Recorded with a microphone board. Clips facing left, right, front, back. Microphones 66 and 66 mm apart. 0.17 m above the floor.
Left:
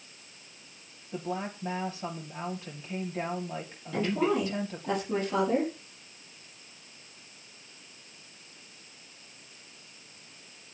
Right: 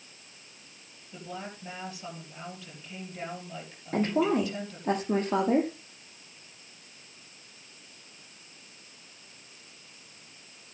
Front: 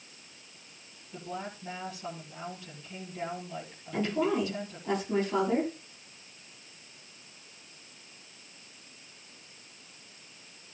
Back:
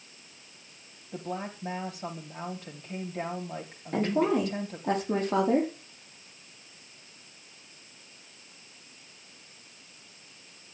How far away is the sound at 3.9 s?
About 6 m.